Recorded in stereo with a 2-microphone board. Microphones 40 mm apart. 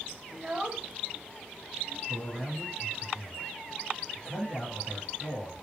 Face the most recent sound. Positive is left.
turn(degrees=10)  # may be behind; listen again after turning